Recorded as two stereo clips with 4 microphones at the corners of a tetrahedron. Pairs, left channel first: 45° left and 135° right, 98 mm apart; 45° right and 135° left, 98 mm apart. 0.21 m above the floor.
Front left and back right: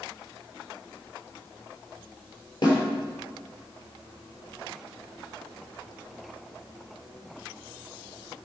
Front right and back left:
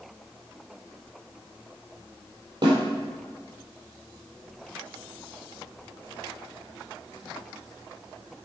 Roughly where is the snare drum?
Left.